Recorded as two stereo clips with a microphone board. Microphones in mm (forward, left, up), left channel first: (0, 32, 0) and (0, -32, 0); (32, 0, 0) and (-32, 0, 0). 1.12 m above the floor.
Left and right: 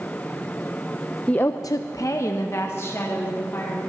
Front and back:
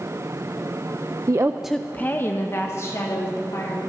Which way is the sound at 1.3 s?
160° left.